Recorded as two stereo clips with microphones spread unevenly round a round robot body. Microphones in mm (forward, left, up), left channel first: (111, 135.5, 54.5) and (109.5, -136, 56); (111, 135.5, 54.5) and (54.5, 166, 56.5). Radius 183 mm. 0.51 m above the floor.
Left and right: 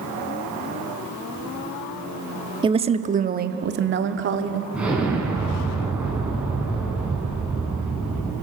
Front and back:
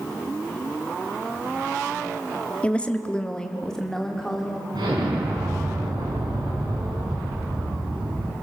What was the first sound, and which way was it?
A woman speaking, 50° right.